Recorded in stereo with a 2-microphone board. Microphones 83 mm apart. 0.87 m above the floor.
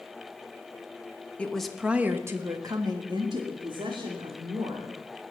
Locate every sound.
1.4 s a woman speaking: 15° left (ahead or behind), 1.3 m; by 4.9 s 75° right (ahead or behind), 3.5 m